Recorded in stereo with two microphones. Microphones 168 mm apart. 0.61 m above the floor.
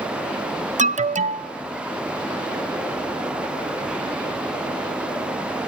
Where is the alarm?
45° right (ahead or behind), 0.6 m.